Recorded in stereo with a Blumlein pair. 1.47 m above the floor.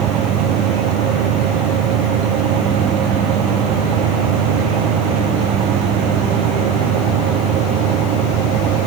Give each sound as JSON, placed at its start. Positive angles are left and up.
{"t": 0.0, "sound": "a fan", "azimuth_deg": -30}